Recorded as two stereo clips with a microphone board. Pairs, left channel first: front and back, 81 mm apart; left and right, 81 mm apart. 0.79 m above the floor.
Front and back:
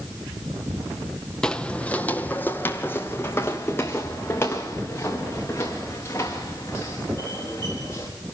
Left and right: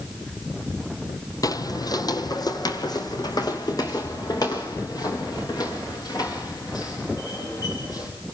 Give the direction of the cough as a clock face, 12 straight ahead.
No cough in this recording.